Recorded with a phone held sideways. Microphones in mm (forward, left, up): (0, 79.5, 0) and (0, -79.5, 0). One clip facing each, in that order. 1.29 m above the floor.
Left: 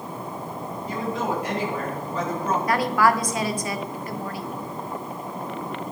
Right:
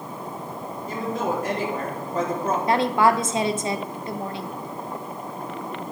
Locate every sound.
0.9 s a woman speaking: 50° right (ahead or behind), 3 m
2.7 s a woman speaking: 25° right (ahead or behind), 0.7 m